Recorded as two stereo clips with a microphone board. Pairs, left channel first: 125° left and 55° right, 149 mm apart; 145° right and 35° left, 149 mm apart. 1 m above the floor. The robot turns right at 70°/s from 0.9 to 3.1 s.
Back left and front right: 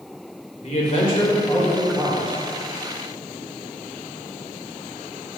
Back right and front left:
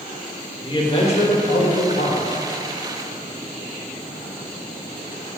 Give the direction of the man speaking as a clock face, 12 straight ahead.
7 o'clock.